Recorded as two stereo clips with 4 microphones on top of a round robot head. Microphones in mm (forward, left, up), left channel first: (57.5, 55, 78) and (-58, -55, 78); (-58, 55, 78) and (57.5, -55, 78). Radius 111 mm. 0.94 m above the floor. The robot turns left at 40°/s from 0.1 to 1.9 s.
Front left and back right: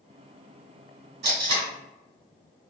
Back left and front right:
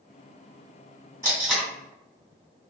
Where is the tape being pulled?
120° right, 2.0 m; by 1.7 s 135° right, 2.0 m.